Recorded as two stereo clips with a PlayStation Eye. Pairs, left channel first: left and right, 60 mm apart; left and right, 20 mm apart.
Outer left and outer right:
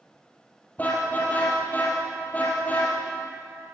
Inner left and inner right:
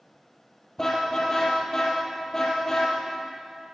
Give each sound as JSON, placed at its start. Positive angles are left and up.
{"t": 0.8, "sound": "a car horn", "side_deg": 25, "distance_m": 5.5}